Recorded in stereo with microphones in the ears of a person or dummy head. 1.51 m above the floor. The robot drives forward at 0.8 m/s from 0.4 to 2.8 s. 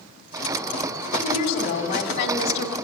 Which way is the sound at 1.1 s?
45° left (ahead or behind).